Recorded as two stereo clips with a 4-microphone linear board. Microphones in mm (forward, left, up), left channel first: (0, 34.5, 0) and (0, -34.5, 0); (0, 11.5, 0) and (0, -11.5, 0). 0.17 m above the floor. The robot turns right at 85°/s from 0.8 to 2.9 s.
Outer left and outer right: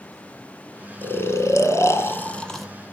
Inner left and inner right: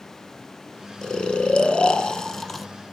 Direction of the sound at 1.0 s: 40° left.